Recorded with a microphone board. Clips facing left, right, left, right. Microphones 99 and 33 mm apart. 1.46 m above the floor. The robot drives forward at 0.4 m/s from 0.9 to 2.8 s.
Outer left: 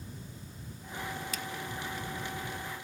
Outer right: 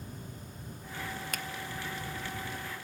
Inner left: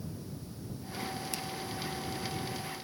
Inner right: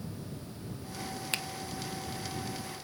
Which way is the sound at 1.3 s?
55° right (ahead or behind).